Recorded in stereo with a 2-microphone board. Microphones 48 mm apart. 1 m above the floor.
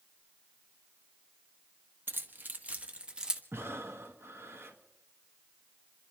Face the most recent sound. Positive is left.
turn(degrees=-55)  # may be behind; listen again after turning